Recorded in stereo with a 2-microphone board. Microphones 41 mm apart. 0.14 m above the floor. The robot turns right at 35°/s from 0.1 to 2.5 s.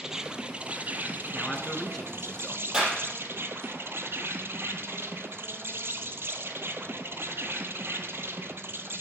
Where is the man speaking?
Centre (ahead or behind), 1.3 m; by 2.6 s 20° left (ahead or behind), 1.3 m.